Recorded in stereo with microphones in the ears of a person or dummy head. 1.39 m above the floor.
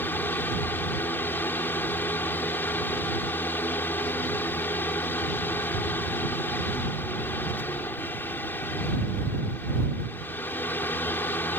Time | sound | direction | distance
0.0 | a fan | 15° left (ahead or behind) | ?